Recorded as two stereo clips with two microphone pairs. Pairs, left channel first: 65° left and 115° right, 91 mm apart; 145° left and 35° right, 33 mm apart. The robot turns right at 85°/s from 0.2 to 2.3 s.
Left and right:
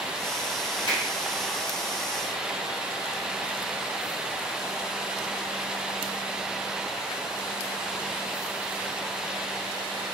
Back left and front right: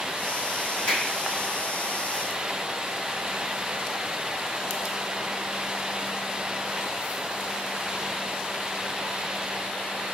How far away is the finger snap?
About 1.7 m.